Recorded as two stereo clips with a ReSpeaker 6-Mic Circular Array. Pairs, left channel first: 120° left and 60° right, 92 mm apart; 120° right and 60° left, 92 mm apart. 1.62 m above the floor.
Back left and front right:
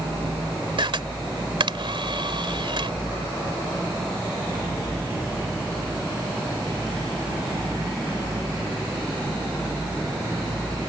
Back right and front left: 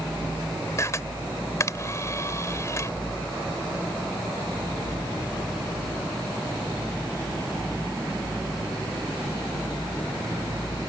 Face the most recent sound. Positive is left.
turn(degrees=-65)